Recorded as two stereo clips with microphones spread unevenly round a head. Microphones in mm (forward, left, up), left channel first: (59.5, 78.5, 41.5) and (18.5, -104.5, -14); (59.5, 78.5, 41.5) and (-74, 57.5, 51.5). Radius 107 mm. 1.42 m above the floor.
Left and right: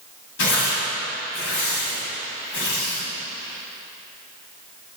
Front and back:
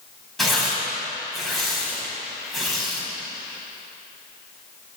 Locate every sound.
0.4 s tearing paper: 100° left, 4 m